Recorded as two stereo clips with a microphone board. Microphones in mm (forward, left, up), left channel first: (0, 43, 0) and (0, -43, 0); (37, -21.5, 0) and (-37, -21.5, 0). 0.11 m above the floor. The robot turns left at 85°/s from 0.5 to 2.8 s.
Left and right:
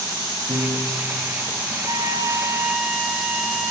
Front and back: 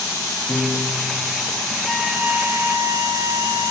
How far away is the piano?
About 4 m.